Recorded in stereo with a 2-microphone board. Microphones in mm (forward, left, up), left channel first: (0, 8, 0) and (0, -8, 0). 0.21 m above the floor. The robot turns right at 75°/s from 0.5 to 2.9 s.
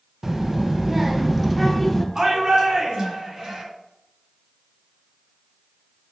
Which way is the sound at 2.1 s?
130° right.